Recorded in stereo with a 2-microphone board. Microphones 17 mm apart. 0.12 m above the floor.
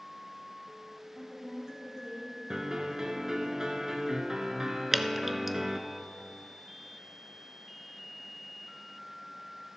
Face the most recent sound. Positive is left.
turn(degrees=-15)  # may be behind; listen again after turning